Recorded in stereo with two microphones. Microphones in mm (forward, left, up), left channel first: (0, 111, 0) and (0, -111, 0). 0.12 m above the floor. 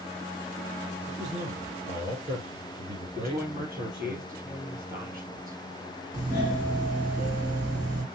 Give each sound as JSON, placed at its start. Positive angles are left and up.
{"t": 1.1, "sound": "a man speaking", "side_deg": -30, "distance_m": 3.5}
{"t": 3.1, "sound": "a woman speaking", "side_deg": -40, "distance_m": 3.0}
{"t": 6.1, "sound": "a doorbell", "side_deg": -15, "distance_m": 2.5}